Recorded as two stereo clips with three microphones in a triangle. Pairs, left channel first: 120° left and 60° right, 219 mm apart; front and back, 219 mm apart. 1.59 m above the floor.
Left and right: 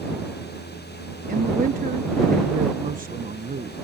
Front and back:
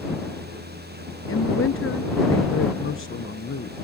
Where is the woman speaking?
10° right.